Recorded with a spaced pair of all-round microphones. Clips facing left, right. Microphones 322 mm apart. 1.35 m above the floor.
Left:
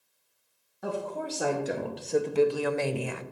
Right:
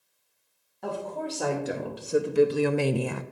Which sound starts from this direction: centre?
A woman speaking, at 0.8 s.